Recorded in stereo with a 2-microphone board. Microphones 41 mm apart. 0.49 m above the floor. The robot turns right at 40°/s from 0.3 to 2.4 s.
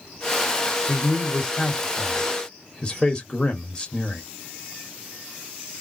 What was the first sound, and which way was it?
A man speaking, 10° right (ahead or behind).